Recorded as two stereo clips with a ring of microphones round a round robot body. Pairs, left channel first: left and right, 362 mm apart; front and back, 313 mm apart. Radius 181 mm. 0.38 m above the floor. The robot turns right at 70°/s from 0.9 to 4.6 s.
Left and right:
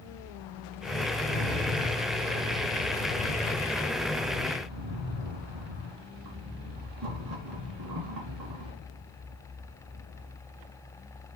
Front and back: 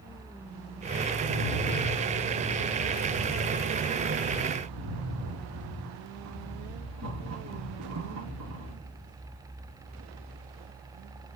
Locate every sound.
1.2 s a rattle: 5° right, 3 m; by 8.7 s 130° right, 3 m